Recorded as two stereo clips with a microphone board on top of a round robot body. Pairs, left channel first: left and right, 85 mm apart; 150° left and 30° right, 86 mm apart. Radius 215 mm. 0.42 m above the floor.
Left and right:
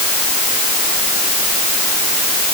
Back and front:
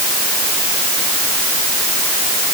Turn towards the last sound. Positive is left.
No sound to turn to.